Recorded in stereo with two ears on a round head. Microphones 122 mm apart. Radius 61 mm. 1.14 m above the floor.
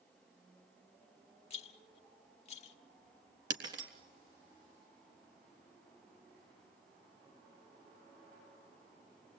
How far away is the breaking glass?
About 3.5 m.